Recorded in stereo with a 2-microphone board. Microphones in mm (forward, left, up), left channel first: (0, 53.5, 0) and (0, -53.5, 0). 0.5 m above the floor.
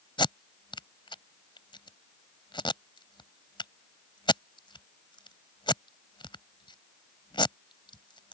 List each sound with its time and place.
0.2 s tape being pulled: 50° left (ahead or behind)